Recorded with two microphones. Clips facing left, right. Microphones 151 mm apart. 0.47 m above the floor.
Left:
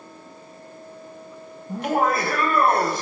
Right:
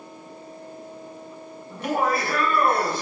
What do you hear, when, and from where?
1.7 s laughter: 50° left (ahead or behind), 3.5 m; by 3.0 s 45° left (ahead or behind), 2.5 m